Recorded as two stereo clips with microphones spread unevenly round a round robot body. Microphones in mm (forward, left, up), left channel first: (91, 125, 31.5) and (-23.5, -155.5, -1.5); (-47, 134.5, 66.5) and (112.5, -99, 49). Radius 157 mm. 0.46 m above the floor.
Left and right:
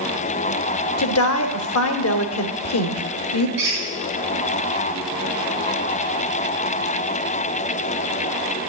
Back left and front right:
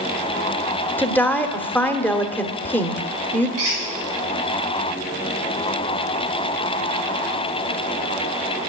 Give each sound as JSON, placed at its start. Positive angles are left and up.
{"t": 1.0, "sound": "a woman speaking", "azimuth_deg": 40, "distance_m": 1.3}
{"t": 3.6, "sound": "a squeak", "azimuth_deg": -100, "distance_m": 7.0}